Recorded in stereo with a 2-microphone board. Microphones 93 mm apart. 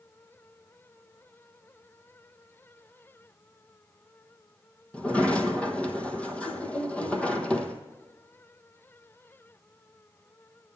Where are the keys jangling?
No keys jangling in this recording.